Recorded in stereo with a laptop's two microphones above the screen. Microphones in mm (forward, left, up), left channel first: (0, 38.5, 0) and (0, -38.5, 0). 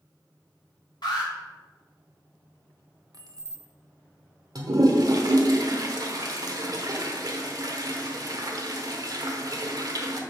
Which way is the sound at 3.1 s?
50° right (ahead or behind).